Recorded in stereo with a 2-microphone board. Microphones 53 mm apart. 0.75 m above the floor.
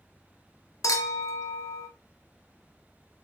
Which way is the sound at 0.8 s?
85° left.